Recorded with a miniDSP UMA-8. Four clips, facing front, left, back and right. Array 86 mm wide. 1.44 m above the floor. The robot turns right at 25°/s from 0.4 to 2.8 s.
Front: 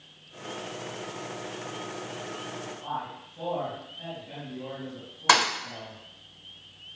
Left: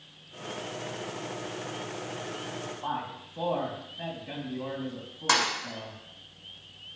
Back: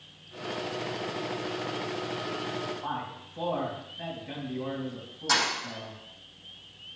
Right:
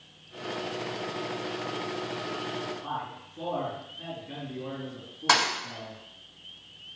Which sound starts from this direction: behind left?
A man speaking, at 2.8 s.